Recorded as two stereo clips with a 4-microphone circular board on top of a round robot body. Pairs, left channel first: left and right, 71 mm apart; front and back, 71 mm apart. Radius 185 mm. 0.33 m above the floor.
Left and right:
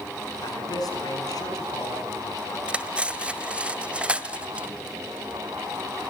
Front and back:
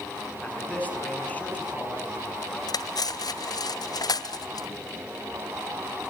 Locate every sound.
0.4 s a man speaking: 65° left, 6.5 m
2.7 s cutlery clinking: 20° right, 1.4 m